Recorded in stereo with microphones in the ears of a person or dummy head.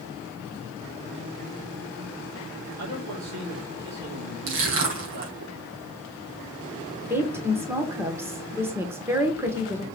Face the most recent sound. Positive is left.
turn(degrees=-15)  # may be behind; listen again after turning